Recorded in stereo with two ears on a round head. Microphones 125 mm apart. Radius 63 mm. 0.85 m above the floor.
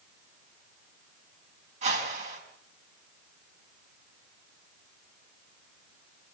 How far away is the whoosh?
About 5 m.